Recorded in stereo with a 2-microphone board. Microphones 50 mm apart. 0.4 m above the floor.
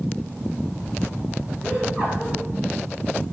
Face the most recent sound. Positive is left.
turn(degrees=-30)  # may be behind; listen again after turning